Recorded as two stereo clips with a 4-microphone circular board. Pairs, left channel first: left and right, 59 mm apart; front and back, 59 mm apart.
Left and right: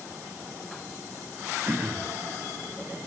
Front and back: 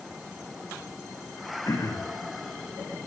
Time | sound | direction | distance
1.6 | throat clearing | 30° right | 9 m